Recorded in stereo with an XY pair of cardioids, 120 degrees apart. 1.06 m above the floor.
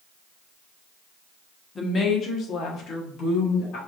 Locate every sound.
1.8 s a woman speaking: 30° left, 1.1 m; by 3.8 s 75° left, 2.5 m